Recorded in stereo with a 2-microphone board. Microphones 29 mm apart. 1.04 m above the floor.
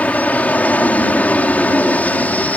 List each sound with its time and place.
0.0 s an aircraft: 55° left (ahead or behind)